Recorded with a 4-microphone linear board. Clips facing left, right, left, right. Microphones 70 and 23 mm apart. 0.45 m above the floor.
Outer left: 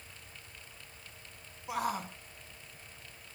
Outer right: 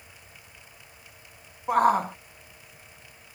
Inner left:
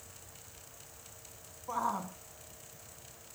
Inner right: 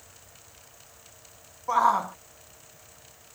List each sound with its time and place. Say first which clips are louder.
1.7 s a shout: outer right 14 dB, inner right 12 dB; 45° right (ahead or behind)